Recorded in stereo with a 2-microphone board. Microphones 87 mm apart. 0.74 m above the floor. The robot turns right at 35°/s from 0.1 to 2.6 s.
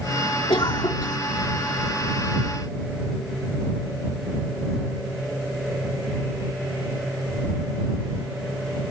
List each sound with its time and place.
0.5 s a cough: 65° left (ahead or behind); by 1.2 s 55° left (ahead or behind)